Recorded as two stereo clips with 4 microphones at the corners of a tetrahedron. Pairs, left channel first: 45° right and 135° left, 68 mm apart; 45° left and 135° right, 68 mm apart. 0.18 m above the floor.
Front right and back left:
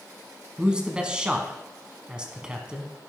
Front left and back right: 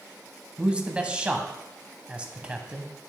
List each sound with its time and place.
0.6 s a man speaking: 175° right, 1.0 m